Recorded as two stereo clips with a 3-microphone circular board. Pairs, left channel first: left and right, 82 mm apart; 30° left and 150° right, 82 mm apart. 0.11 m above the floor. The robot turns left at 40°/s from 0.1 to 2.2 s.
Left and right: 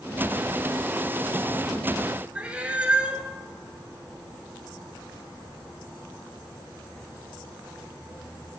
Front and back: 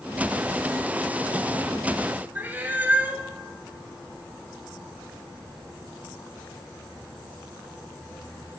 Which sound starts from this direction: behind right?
A cat meowing, at 2.4 s.